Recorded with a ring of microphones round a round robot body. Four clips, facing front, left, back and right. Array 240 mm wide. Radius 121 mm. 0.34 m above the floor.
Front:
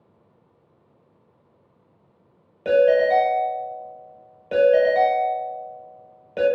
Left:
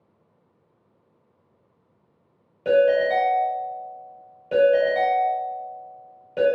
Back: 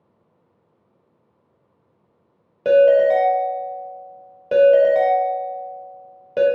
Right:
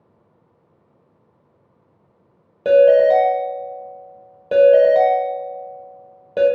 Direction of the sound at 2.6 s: 130° right.